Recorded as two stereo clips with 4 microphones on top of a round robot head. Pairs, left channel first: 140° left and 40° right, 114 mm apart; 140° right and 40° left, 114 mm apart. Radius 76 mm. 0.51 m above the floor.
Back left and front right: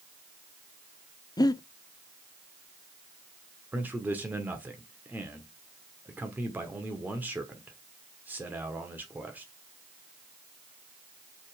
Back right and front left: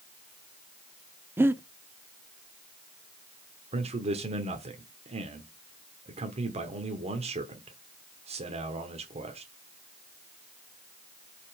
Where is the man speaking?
30° left, 1.2 m.